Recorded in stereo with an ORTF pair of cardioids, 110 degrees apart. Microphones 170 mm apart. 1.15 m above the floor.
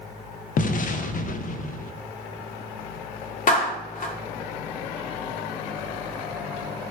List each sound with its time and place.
0.6 s an explosion: 50° left, 0.6 m
3.5 s a clap: 50° left, 1.8 m